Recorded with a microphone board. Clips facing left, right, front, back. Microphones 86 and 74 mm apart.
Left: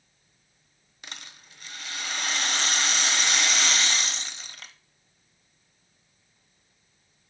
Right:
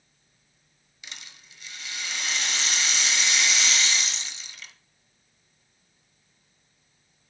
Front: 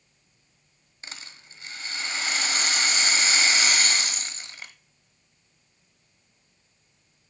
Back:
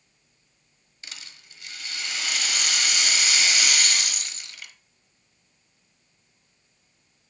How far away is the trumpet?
No trumpet in this recording.